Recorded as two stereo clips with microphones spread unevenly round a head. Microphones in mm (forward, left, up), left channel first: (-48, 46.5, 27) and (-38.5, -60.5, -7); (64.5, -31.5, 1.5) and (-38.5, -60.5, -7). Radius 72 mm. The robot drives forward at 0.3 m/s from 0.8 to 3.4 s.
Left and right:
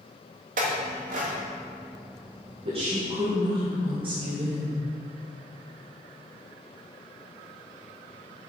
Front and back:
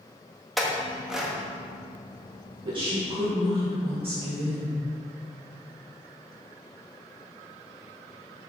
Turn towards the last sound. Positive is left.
turn(degrees=-130)